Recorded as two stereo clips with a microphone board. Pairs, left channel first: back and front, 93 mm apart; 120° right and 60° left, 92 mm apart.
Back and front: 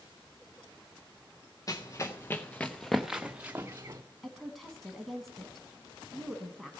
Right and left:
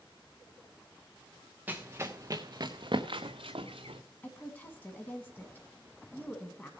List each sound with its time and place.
1.7 s running footsteps: 130° left, 1.2 m; by 4.0 s 50° left, 1.0 m
4.2 s a woman speaking: 95° right, 1.0 m